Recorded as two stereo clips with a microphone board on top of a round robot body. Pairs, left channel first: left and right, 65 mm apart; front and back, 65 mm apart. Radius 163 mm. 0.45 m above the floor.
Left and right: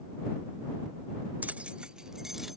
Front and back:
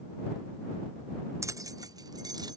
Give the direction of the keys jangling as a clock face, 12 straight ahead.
5 o'clock.